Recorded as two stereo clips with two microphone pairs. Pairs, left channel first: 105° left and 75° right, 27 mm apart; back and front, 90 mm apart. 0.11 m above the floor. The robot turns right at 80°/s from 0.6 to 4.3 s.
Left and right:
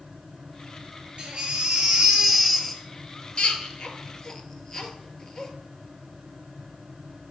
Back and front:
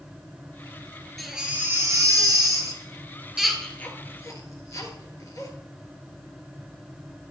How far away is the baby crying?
About 1.6 m.